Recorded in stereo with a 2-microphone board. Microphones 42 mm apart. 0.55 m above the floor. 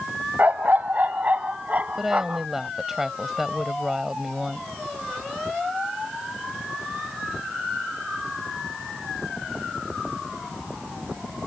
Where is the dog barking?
50° right (ahead or behind); by 2.5 s 35° right (ahead or behind).